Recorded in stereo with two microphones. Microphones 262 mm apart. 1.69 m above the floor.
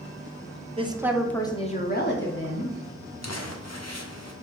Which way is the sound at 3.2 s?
75° left (ahead or behind).